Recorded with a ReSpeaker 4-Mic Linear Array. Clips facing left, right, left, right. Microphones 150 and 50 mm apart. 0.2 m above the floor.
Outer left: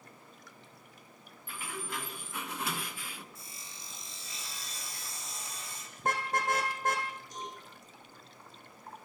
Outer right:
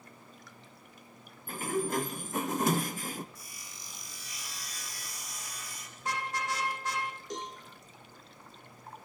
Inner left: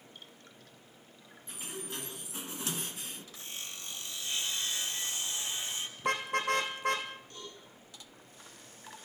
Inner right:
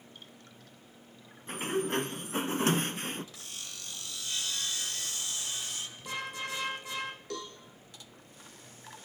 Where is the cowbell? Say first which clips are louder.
Outer right 4 dB, inner right 7 dB; 80° right, 8.5 m.